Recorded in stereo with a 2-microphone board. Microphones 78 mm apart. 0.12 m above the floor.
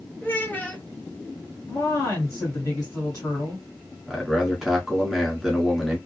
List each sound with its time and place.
0.2 s a child speaking: 25° left (ahead or behind), 0.7 m
1.7 s a woman speaking: 40° left (ahead or behind), 1.8 m
4.1 s a man speaking: centre (ahead or behind), 1.2 m